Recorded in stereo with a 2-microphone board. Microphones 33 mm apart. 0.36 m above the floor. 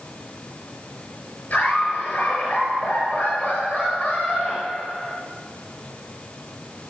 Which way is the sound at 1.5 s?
50° left (ahead or behind).